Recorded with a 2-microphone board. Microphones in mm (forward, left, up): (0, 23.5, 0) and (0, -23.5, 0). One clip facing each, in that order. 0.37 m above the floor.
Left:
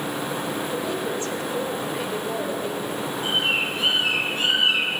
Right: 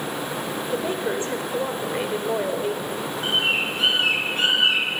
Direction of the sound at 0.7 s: 30° right (ahead or behind).